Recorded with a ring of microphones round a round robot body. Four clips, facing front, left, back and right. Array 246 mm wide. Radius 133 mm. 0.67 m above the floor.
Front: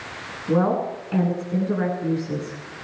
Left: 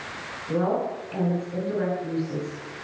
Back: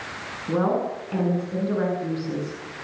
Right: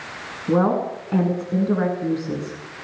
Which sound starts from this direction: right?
A woman speaking, at 0.5 s.